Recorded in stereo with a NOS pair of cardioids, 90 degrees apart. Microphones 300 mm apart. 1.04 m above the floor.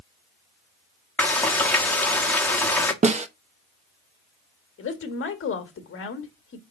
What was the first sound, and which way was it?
Frying, 5° left.